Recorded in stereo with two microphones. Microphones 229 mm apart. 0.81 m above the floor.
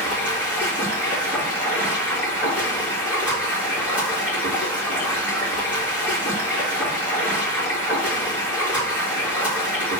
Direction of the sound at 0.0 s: 5° right (ahead or behind).